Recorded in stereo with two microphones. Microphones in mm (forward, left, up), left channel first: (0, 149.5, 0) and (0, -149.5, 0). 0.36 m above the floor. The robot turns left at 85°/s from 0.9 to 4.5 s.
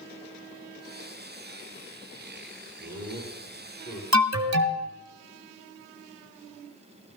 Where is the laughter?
90° right, 9 m; by 4.0 s 165° left, 9 m.